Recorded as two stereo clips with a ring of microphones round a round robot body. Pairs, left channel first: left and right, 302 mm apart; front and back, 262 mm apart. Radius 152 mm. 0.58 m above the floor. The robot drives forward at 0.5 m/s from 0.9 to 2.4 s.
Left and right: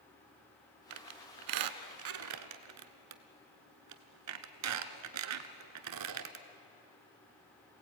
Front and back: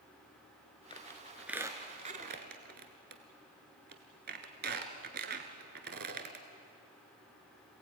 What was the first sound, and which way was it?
A squeak, 75° right.